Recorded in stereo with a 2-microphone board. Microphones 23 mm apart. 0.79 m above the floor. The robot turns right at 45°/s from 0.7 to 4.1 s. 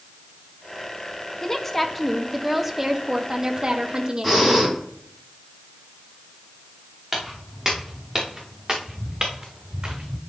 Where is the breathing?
Centre (ahead or behind), 4 m.